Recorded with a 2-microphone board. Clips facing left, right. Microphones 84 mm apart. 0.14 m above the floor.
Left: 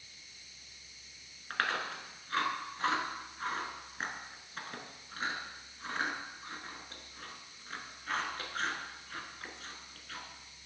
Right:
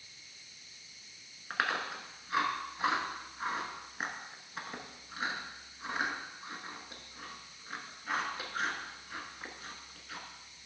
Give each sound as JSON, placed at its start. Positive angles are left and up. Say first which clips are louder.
{"t": 1.5, "sound": "chewing", "louder": "right 1 dB", "side_deg": -10, "distance_m": 0.9}